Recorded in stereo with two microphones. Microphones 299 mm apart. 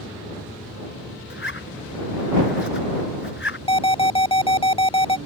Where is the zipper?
40° left (ahead or behind).